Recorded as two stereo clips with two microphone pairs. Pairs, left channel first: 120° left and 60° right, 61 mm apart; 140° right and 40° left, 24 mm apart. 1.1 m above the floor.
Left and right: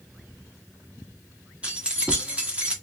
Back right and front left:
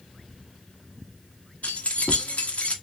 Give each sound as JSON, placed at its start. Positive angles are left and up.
{"t": 1.6, "sound": "keys jangling", "azimuth_deg": -130, "distance_m": 1.1}